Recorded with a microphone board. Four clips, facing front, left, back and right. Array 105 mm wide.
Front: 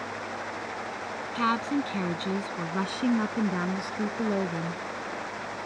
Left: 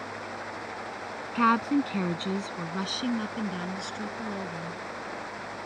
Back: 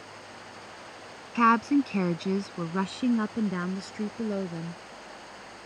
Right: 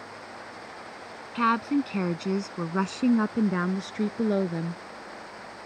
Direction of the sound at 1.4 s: 165° left.